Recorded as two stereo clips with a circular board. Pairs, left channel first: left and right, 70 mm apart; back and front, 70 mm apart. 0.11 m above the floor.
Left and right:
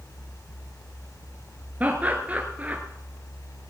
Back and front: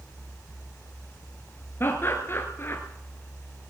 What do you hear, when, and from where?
1.8 s laughter: 150° right, 1.5 m